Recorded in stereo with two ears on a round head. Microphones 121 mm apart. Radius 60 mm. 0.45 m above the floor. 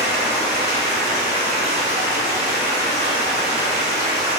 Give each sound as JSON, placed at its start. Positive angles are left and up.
{"t": 0.0, "sound": "running water", "side_deg": -65, "distance_m": 0.9}